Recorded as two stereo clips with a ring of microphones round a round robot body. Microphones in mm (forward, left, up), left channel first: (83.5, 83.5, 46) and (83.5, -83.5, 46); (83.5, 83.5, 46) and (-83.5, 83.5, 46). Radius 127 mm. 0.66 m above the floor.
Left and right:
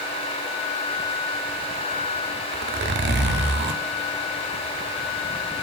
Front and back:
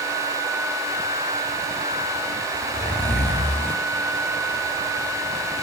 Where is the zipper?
85° right, 0.8 m.